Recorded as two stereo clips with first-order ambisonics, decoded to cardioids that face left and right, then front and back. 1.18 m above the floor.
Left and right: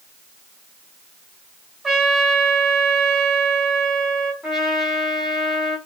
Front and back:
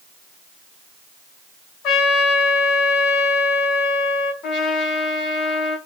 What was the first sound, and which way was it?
A trumpet, straight ahead.